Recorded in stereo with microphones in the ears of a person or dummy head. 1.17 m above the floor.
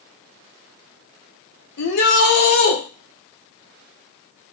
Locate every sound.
1.8 s a shout: 60° left (ahead or behind), 0.8 m